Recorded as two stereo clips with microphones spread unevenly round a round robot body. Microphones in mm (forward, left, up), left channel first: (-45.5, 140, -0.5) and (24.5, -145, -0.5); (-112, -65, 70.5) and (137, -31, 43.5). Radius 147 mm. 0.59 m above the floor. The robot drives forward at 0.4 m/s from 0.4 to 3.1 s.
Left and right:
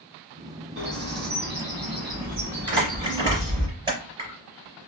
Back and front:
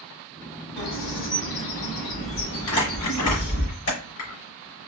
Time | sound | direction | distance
0.8 | a bird | 130° right | 3 m
2.7 | crumpling | 150° right | 3.5 m